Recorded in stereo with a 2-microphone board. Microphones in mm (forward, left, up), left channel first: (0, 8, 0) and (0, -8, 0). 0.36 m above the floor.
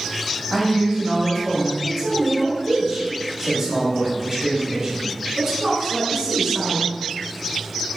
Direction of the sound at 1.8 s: 25° right (ahead or behind).